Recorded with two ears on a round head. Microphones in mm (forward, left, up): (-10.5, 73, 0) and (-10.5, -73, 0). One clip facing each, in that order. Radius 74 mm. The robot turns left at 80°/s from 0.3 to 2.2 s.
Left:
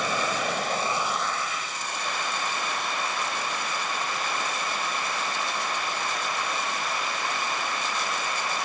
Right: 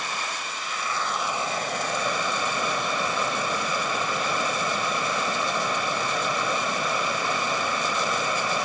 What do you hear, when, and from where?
0.0 s running water: 70° left, 1.7 m; by 8.7 s 85° right, 1.7 m